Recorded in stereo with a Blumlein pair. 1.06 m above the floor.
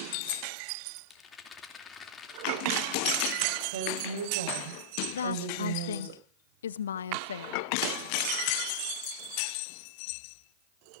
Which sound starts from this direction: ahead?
A rattle, at 1.1 s.